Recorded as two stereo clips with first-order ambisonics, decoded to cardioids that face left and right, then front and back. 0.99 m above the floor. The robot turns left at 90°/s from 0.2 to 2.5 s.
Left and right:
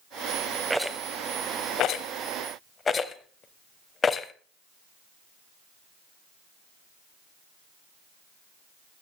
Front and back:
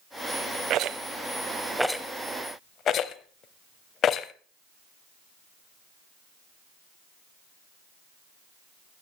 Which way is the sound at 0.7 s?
165° right.